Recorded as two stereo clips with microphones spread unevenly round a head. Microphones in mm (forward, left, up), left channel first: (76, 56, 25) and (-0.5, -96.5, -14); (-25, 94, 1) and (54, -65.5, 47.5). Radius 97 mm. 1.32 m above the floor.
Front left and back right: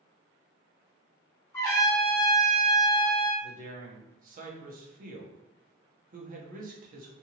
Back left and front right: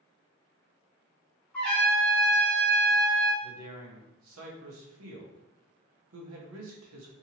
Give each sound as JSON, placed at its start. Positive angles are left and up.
{"t": 1.5, "sound": "a trumpet", "azimuth_deg": 20, "distance_m": 1.0}
{"t": 3.4, "sound": "a man speaking", "azimuth_deg": -80, "distance_m": 0.8}